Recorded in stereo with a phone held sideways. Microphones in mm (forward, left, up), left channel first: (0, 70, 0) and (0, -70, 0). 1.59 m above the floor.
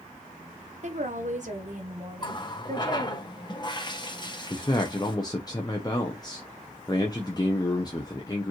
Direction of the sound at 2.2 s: 30° left (ahead or behind).